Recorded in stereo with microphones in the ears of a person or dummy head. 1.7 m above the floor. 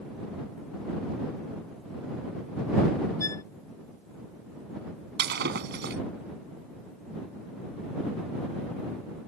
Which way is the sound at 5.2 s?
65° right (ahead or behind).